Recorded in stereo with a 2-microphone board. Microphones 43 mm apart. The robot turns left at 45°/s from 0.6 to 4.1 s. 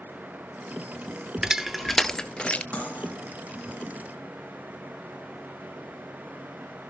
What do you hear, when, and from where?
1.4 s crushing: 20° right (ahead or behind), 0.6 m; by 2.6 s 30° left (ahead or behind), 0.6 m
2.7 s cutlery clinking: 30° left (ahead or behind), 3.5 m; by 3.1 s 45° left (ahead or behind), 3.5 m